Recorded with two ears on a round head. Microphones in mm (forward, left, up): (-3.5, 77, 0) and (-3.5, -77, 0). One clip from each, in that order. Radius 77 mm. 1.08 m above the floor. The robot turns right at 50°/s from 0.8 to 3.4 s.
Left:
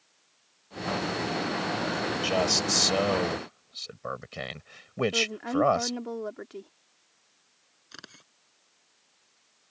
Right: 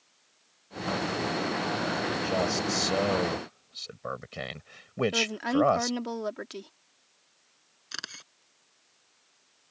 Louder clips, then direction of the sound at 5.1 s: Right 1 dB; 80° right.